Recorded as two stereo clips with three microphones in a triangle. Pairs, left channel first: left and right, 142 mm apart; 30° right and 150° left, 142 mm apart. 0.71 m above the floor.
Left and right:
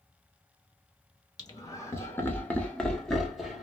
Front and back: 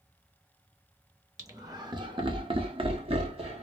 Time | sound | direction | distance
1.4 | laughter | 110° left | 1.0 m